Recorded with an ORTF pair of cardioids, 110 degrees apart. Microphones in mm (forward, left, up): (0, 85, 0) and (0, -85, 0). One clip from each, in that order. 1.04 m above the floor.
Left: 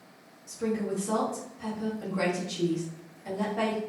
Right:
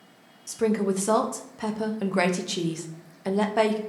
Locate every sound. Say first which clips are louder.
0.5 s a woman speaking: right 6 dB; 60° right, 0.7 m